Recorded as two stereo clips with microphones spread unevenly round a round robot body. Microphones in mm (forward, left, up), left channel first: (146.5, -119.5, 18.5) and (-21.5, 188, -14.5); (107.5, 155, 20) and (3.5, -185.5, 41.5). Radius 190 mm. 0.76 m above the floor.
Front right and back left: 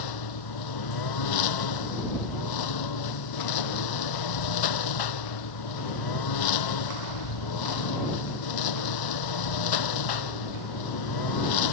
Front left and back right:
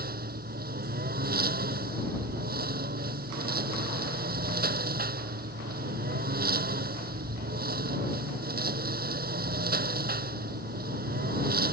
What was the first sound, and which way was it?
A lawn mower, 40° right.